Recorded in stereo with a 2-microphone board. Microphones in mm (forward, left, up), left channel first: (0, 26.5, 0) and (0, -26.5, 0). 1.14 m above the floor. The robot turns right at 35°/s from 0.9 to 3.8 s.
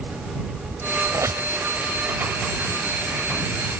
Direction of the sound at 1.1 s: 60° right (ahead or behind).